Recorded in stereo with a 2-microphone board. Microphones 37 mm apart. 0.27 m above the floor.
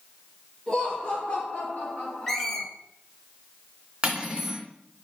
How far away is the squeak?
About 1.5 m.